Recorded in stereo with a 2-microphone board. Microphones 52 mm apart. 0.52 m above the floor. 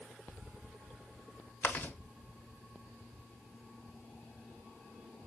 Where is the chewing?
40° left (ahead or behind), 1.2 m.